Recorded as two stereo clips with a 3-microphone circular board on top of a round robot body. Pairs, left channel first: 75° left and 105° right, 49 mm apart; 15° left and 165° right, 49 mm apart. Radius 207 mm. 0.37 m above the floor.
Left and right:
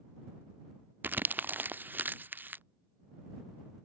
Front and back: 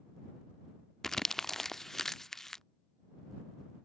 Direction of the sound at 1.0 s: 65° right.